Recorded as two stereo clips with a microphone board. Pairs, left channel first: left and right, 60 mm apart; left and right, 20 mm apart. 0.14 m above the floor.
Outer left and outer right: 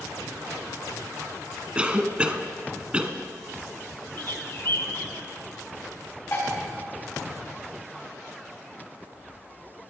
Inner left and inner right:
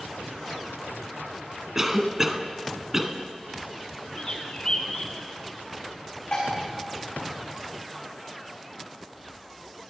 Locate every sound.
1.8 s a cough: 20° right (ahead or behind), 1.1 m
4.2 s a bird: 40° left (ahead or behind), 1.9 m
6.3 s dishes clattering: 50° left (ahead or behind), 7 m